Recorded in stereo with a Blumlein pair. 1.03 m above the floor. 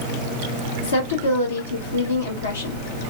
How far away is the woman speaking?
About 1.3 m.